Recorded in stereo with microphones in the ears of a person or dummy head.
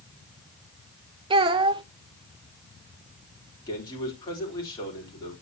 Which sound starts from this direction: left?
A man speaking, at 3.7 s.